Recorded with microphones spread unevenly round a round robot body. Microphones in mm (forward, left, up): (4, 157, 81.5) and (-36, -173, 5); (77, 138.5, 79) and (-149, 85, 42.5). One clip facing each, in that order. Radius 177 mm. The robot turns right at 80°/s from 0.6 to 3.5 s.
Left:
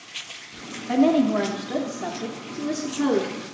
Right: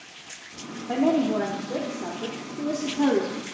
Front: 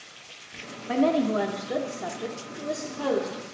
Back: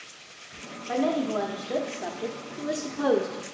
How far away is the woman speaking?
About 0.8 m.